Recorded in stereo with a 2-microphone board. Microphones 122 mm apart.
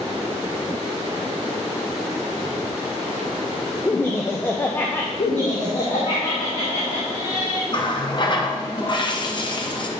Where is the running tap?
40° left (ahead or behind), 0.7 m.